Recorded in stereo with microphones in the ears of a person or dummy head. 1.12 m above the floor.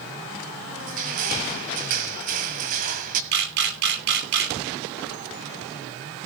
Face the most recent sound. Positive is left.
turn(degrees=-65)  # may be behind; listen again after turning